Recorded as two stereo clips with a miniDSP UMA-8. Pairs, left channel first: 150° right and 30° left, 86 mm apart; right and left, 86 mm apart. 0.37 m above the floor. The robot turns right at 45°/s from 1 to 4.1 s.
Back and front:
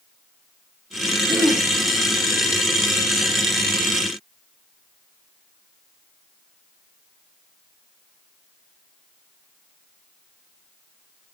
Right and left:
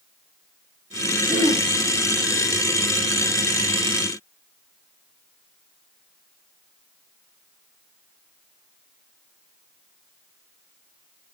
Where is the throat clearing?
120° left, 9.5 m; by 1.7 s 135° left, 9.5 m.